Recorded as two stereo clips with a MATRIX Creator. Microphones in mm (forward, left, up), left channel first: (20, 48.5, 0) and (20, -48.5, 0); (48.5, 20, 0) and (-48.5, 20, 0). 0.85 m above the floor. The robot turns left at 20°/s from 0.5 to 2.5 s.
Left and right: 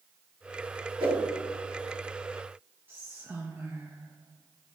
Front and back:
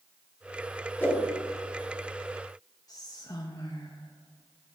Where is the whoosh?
70° right, 1.8 m; by 1.2 s 75° right, 1.8 m.